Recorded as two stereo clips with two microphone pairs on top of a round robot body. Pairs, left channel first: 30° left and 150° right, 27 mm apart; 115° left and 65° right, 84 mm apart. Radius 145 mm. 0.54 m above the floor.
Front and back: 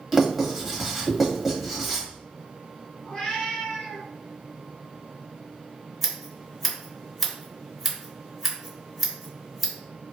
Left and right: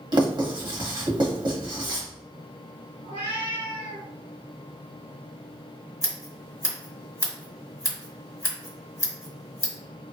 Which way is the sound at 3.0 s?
30° right.